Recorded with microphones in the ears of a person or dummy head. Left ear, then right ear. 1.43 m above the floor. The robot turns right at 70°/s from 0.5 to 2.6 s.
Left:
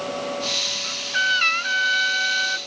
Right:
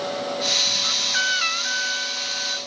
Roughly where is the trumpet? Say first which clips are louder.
Right 1 dB; ahead right.